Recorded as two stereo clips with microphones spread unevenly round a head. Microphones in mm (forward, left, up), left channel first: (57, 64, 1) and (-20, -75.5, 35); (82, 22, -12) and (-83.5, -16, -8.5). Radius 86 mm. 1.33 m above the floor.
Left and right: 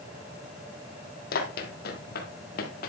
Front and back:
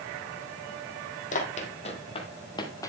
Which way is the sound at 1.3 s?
40° left.